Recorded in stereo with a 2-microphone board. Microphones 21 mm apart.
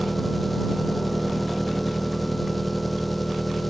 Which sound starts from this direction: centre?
An engine running, at 0.0 s.